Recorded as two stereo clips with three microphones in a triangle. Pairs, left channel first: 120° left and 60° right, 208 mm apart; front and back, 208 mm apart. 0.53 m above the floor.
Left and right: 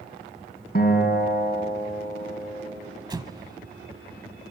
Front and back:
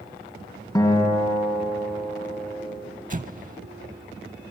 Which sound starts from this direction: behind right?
An explosion, at 3.1 s.